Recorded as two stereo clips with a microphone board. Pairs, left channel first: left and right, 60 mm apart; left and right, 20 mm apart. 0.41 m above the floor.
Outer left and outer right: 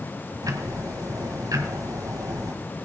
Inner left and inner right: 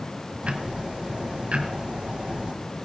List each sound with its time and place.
0.4 s ticking: 75° right (ahead or behind), 1.2 m